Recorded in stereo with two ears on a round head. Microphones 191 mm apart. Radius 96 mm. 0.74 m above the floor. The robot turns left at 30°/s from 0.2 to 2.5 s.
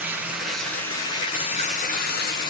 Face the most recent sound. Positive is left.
turn(degrees=120)